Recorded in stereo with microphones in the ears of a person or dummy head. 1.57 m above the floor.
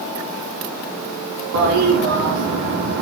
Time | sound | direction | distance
1.5 | a toilet flushing | 65° right (ahead or behind) | 1.1 m